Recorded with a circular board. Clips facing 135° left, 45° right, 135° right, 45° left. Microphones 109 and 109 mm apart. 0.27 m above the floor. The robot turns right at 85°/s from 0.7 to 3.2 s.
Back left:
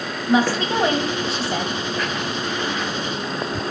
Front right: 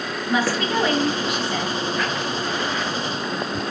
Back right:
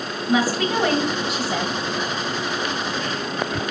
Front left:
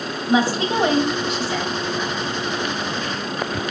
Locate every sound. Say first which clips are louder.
0.3 s a woman speaking: back left 3 dB, front left 1 dB; 85° left, 1.0 m; by 1.8 s 175° left, 1.0 m